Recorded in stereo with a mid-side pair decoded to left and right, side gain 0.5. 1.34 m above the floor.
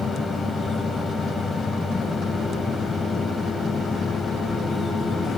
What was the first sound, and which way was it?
A fan, 25° left.